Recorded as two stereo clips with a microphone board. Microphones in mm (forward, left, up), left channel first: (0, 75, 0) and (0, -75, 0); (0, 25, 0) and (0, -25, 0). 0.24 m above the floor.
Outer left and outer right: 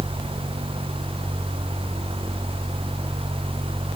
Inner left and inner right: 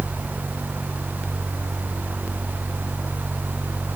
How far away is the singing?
No singing in this recording.